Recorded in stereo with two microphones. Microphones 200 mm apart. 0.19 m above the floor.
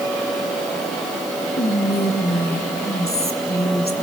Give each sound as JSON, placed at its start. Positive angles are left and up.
{"t": 1.6, "sound": "whispering", "side_deg": 50, "distance_m": 2.5}